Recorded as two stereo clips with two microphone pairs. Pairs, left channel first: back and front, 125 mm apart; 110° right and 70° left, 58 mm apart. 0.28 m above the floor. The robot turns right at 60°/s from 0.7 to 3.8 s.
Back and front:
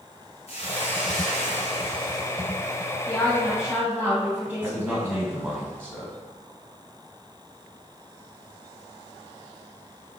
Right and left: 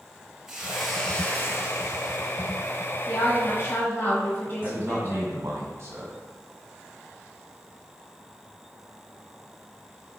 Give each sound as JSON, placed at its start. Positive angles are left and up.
{"t": 0.5, "sound": "a hiss", "azimuth_deg": 150, "distance_m": 1.1}
{"t": 3.1, "sound": "a woman speaking", "azimuth_deg": -115, "distance_m": 1.5}
{"t": 4.6, "sound": "a man speaking", "azimuth_deg": 65, "distance_m": 1.5}